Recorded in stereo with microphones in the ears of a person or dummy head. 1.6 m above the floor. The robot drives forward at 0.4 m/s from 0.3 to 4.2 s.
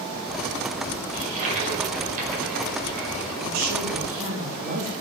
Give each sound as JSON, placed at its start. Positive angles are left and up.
{"t": 1.1, "sound": "a toilet flushing", "side_deg": -40, "distance_m": 5.0}
{"t": 3.4, "sound": "a woman speaking", "side_deg": -45, "distance_m": 3.5}